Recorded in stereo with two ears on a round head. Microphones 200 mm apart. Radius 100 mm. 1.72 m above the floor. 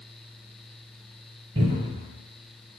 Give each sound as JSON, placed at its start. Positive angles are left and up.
{"t": 1.6, "sound": "a cupboard door", "side_deg": -25, "distance_m": 1.3}